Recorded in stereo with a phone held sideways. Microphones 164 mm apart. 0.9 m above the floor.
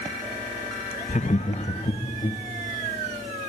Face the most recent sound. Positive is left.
turn(degrees=30)  # may be behind; listen again after turning